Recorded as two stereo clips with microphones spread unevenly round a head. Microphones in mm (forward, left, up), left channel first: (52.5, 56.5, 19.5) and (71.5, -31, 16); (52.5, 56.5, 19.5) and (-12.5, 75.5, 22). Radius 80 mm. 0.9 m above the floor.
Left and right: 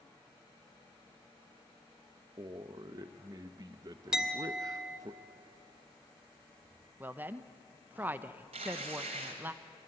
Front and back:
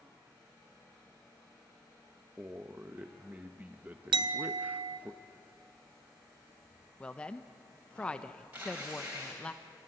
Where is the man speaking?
125° right, 0.8 m.